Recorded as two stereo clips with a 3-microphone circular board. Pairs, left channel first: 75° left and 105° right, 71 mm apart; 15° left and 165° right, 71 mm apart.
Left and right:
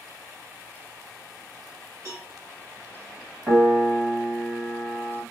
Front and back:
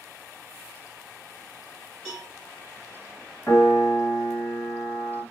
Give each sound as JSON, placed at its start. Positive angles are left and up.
{"t": 2.0, "sound": "a cowbell", "azimuth_deg": -65, "distance_m": 1.8}
{"t": 3.5, "sound": "a piano", "azimuth_deg": -30, "distance_m": 1.4}